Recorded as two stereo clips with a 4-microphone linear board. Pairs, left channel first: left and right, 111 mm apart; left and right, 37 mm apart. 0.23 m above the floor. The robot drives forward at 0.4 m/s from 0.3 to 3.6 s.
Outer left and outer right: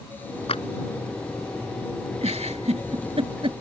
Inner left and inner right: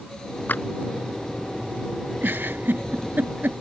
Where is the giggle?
75° right (ahead or behind); by 3.5 s 60° right (ahead or behind).